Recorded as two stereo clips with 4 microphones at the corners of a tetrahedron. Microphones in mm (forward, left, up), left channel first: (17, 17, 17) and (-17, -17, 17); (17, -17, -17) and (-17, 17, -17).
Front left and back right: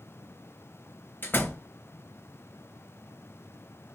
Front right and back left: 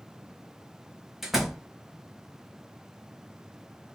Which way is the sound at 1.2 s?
55° left.